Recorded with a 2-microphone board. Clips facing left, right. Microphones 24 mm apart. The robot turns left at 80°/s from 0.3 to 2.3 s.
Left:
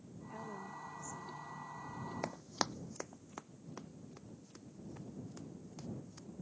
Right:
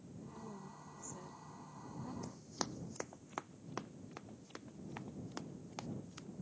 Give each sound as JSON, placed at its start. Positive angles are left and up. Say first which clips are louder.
{"t": 0.3, "sound": "a woman speaking", "louder": "left 7 dB", "side_deg": 50}
{"t": 2.2, "sound": "running footsteps", "louder": "left 8 dB", "side_deg": 70}